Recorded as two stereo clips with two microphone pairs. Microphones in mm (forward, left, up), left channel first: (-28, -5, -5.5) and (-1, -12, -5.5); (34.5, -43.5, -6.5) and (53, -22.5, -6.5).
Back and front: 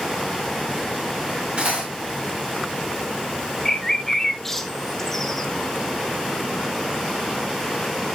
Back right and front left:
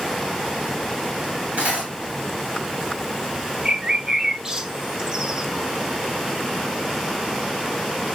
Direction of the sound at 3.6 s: 95° left.